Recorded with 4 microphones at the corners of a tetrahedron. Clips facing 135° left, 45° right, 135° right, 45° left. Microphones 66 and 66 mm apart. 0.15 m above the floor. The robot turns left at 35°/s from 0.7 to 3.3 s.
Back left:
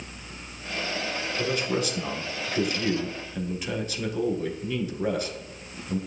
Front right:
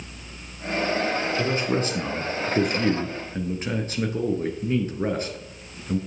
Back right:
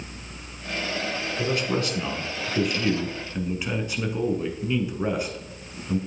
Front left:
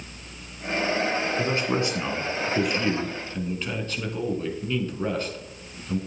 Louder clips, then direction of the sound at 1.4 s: Back left 1 dB, front left 1 dB; 5° left.